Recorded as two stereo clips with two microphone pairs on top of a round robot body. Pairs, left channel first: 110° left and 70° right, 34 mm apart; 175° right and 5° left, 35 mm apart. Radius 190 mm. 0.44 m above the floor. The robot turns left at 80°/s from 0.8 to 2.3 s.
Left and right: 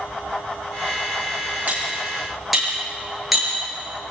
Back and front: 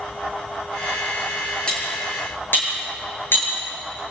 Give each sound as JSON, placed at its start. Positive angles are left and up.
{"t": 1.7, "sound": "cutlery clinking", "azimuth_deg": -110, "distance_m": 8.0}